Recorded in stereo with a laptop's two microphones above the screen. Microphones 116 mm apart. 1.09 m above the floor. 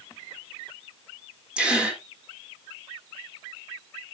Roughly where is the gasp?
Centre.